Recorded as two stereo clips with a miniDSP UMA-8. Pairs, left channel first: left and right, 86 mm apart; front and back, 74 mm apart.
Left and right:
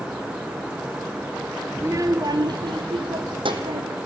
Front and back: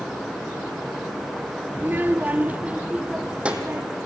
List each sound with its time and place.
1.8 s a child speaking: 135° right, 0.9 m; by 4.0 s 105° right, 3 m